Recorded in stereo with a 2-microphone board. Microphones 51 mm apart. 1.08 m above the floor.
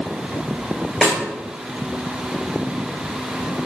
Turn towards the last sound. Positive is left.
turn(degrees=10)  # may be behind; listen again after turning